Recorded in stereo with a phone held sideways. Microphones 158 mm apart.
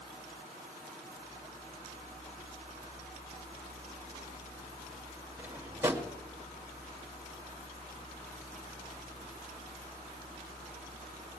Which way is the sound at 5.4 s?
15° right (ahead or behind).